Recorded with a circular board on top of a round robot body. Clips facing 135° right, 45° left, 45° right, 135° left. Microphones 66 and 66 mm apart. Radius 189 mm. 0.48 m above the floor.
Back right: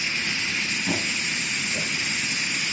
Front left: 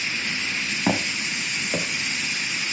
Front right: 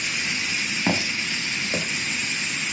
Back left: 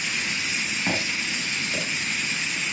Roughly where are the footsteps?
Ahead left.